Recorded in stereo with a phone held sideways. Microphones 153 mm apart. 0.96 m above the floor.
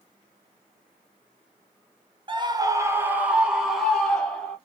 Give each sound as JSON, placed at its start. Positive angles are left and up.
{"t": 2.3, "sound": "a scream", "side_deg": -35, "distance_m": 0.7}